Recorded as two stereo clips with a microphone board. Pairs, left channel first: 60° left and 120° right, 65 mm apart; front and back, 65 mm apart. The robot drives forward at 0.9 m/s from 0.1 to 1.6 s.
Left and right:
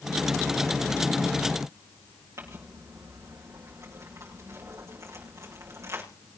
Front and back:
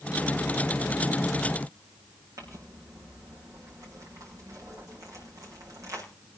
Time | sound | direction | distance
2.4 | crumpling | 155° right | 7 m